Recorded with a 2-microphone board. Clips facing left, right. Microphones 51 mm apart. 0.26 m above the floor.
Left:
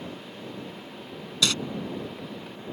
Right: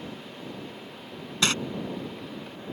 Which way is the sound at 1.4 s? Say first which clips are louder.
Right 1 dB; 35° right (ahead or behind).